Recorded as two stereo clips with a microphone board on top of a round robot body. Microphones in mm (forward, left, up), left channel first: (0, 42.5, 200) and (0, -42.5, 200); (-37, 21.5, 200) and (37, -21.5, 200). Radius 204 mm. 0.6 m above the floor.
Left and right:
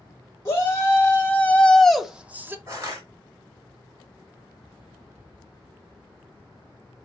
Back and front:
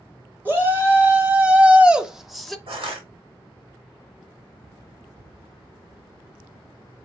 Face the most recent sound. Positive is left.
turn(degrees=-35)